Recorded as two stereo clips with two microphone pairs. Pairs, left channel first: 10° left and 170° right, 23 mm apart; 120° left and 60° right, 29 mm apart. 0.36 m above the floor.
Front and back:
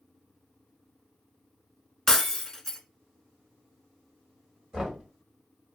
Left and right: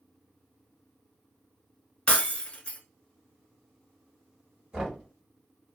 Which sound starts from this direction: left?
Breaking glass, at 2.1 s.